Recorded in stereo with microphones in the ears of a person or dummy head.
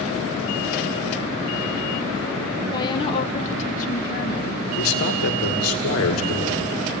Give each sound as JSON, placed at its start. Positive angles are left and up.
{"t": 2.7, "sound": "a woman speaking", "side_deg": 25, "distance_m": 1.4}
{"t": 4.8, "sound": "a man speaking", "side_deg": 85, "distance_m": 2.5}